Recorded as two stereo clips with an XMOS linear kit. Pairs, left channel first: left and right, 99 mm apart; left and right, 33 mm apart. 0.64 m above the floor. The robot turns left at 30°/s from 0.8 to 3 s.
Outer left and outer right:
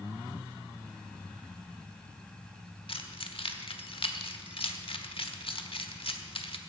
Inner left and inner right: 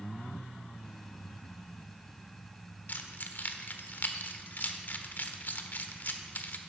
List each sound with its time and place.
2.9 s keys jangling: 75° left (ahead or behind), 1.2 m